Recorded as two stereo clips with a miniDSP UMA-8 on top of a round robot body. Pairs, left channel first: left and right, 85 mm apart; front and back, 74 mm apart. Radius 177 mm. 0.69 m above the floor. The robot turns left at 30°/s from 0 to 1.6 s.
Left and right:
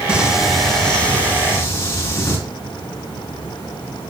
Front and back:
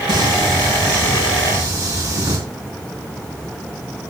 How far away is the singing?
About 4.5 m.